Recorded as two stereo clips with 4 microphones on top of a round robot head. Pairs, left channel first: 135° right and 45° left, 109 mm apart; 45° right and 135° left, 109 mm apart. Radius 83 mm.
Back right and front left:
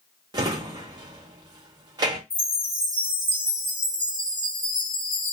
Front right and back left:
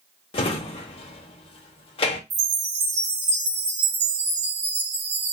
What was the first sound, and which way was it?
A drawer, 10° right.